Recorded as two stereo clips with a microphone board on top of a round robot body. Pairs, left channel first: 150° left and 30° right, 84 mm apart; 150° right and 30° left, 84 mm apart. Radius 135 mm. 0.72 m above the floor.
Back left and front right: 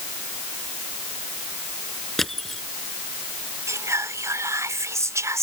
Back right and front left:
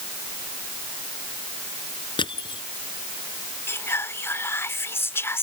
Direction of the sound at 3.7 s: 90° right.